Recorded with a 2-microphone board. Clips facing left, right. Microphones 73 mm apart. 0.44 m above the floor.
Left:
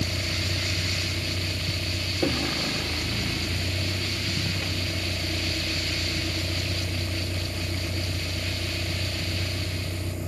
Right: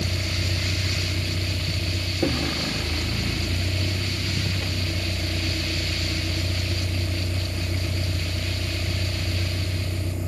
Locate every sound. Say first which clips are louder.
0.0 s a vehicle: right 1 dB; 5° right (ahead or behind)